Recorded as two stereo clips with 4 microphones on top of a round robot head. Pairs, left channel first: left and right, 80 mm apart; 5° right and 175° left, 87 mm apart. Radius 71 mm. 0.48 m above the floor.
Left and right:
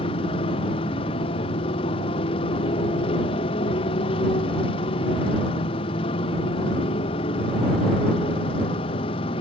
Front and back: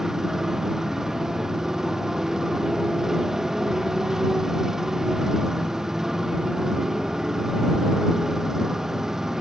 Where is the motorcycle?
90° left.